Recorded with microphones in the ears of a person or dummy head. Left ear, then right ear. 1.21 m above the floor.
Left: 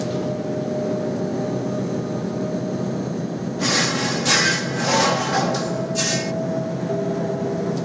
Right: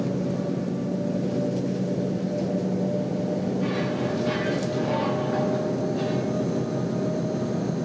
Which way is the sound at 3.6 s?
80° left.